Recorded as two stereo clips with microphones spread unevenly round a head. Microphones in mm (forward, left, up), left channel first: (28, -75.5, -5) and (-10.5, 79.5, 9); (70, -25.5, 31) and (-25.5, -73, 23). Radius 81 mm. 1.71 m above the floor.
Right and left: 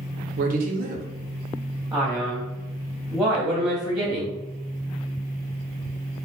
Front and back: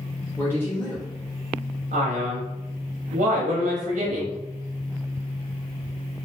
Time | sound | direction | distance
0.4 | a man speaking | 95° left | 0.7 m
1.9 | a man speaking | 170° right | 0.7 m